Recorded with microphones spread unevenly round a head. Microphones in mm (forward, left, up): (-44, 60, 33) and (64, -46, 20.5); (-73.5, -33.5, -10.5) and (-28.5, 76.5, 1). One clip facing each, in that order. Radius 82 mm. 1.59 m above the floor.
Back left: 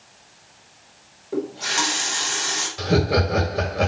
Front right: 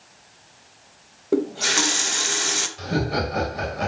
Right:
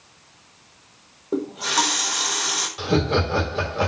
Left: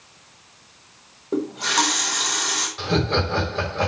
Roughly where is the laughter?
Behind.